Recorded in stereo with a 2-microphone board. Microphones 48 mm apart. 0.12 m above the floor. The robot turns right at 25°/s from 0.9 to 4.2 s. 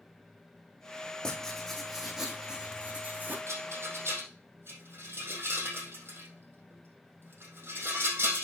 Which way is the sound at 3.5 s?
70° right (ahead or behind).